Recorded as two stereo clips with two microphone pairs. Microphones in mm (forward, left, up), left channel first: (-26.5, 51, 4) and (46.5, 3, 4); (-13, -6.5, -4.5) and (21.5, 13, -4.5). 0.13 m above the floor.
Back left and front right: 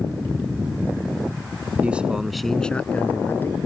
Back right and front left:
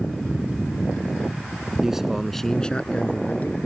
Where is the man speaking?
Straight ahead; by 3.6 s 165° right.